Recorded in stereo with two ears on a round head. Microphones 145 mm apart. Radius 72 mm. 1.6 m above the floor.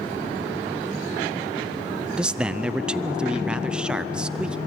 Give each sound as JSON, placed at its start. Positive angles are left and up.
{"t": 2.2, "sound": "a man speaking", "side_deg": -5, "distance_m": 0.6}